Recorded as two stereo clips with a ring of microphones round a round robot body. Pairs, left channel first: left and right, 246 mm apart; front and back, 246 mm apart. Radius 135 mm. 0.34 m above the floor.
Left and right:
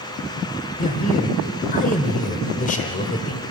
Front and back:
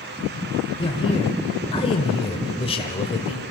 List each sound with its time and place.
0.8 s a man speaking: 55° left, 1.4 m